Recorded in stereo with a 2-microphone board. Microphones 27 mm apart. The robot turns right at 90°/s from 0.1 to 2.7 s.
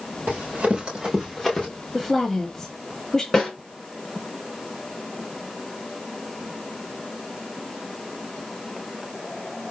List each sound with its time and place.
0.3 s running footsteps: 85° right, 3.5 m; by 1.7 s 25° left (ahead or behind), 3 m
1.9 s a woman speaking: centre (ahead or behind), 1.0 m; by 3.2 s 25° left (ahead or behind), 1.0 m
3.3 s a snare drum: 25° left (ahead or behind), 3 m